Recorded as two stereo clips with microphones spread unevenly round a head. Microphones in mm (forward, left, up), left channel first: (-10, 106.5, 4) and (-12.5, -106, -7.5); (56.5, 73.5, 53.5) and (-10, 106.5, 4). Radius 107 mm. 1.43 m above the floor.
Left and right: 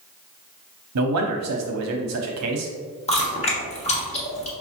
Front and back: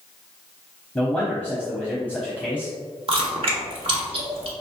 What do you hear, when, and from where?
0.9 s a man speaking: 110° right, 0.8 m
3.1 s chewing: 135° left, 1.3 m